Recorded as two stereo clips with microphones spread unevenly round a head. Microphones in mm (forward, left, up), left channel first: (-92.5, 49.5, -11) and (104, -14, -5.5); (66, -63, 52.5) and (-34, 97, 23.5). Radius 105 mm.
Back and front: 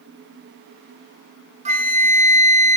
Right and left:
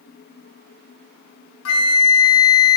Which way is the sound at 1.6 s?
80° right.